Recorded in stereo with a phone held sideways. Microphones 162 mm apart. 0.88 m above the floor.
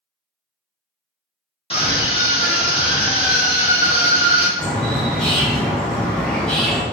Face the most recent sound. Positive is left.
turn(degrees=5)  # may be behind; listen again after turning